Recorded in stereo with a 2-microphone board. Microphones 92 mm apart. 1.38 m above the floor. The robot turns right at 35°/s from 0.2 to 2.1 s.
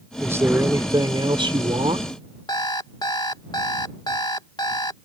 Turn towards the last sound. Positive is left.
turn(degrees=50)  # may be behind; listen again after turning